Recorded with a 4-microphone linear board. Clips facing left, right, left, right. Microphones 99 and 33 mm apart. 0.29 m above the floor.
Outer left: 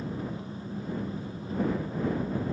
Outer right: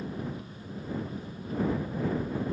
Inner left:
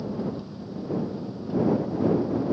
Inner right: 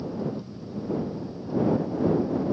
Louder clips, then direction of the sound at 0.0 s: Outer left 1 dB, even; 30° left (ahead or behind).